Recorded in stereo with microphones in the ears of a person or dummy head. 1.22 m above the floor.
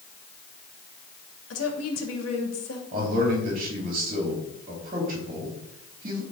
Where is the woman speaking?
85° left, 2.5 m.